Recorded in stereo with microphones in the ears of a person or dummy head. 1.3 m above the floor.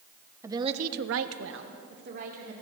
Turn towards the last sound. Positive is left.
turn(degrees=-50)  # may be behind; listen again after turning